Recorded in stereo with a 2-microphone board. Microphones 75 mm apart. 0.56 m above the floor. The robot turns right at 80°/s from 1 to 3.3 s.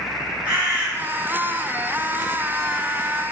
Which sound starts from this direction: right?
A bird, at 0.5 s.